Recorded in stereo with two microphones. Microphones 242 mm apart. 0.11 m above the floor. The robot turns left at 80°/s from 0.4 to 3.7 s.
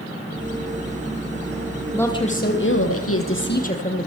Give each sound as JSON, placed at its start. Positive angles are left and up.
{"t": 1.9, "sound": "a woman speaking", "azimuth_deg": 175, "distance_m": 3.5}